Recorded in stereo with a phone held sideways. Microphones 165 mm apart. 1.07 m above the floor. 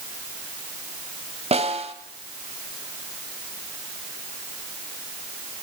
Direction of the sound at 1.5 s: 40° right (ahead or behind).